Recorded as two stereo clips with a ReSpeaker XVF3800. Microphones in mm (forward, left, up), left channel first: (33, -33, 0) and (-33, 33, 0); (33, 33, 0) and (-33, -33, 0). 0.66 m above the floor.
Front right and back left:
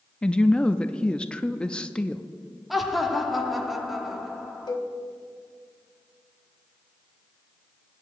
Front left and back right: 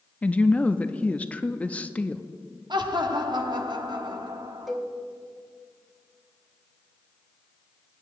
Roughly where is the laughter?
Behind right.